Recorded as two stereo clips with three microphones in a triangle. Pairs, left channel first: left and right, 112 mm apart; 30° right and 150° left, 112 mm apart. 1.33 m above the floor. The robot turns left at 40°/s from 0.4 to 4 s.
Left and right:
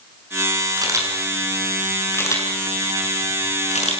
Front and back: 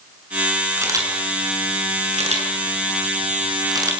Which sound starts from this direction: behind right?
A camera shutter, at 0.8 s.